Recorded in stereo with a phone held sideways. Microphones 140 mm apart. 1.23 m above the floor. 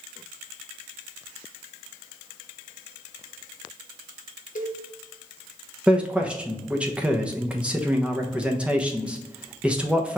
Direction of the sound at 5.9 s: 10° right (ahead or behind).